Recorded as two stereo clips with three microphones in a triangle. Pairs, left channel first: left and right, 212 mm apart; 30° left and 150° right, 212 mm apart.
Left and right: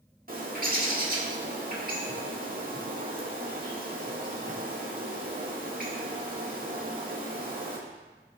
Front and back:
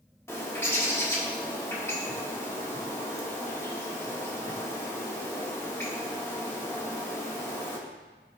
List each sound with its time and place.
0.3 s a bird: 45° right, 1.8 m